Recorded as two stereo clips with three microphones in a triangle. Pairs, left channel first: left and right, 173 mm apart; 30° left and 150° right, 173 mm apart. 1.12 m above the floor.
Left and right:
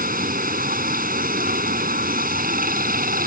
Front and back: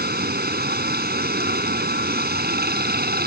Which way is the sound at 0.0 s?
125° right.